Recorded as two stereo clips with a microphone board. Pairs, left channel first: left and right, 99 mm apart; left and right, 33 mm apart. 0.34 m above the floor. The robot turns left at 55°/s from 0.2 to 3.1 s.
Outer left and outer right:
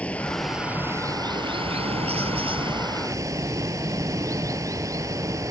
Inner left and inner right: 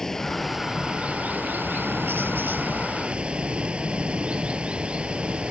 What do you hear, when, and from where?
0.0 s running water: 15° left; by 5.5 s 145° right